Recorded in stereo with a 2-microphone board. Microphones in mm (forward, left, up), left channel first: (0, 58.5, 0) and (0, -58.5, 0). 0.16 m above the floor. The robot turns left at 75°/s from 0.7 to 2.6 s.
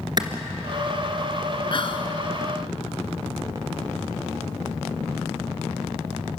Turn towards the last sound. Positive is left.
turn(degrees=45)